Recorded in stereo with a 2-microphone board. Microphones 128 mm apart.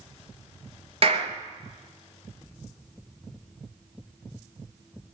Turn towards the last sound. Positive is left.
turn(degrees=-50)  # may be behind; listen again after turning